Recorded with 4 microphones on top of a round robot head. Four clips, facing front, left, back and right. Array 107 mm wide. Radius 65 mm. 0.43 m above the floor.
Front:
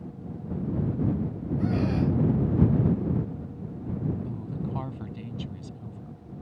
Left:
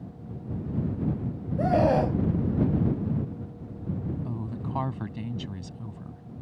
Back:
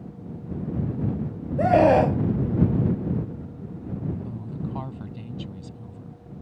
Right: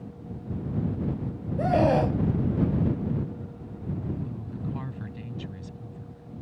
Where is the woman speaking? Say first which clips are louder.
Left 1 dB, back 1 dB; 100° left.